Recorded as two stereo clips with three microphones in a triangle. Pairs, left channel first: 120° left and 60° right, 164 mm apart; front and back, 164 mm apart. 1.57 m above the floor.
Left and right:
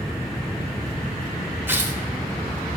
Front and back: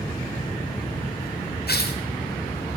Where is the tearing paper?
15° left, 0.8 m.